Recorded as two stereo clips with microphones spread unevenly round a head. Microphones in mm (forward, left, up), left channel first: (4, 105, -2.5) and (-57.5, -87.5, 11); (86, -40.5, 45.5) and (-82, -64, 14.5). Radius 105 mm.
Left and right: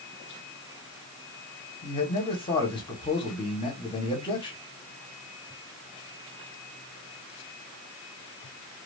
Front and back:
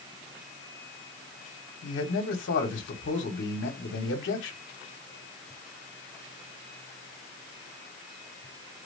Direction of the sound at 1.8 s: 5° left.